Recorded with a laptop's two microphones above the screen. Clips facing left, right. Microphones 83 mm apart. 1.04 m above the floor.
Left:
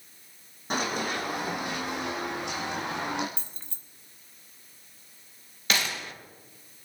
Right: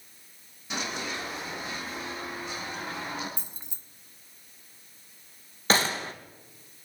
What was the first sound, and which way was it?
Running footsteps, 45° left (ahead or behind).